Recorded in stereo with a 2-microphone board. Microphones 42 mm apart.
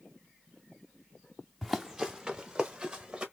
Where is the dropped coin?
No dropped coin in this recording.